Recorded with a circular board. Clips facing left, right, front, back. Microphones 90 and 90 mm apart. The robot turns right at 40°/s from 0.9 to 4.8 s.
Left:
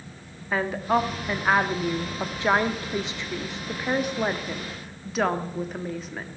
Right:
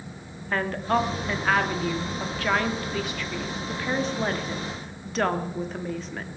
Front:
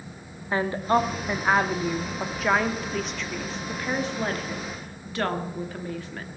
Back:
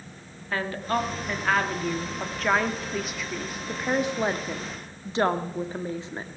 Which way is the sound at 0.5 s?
15° left.